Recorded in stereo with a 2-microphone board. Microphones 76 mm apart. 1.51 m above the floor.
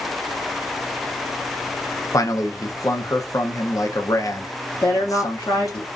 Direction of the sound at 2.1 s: 45° left (ahead or behind).